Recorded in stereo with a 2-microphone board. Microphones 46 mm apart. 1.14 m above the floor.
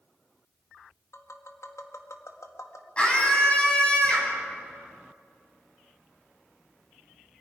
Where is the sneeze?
I don't hear a sneeze.